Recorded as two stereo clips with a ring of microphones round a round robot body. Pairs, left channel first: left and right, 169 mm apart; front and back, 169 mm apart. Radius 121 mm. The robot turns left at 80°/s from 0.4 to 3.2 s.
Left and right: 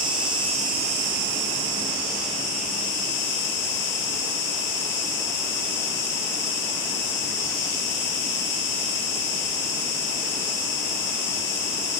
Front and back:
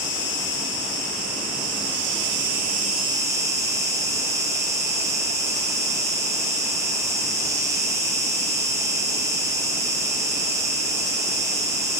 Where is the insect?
30° right, 2.5 m; by 12.0 s 105° left, 2.5 m.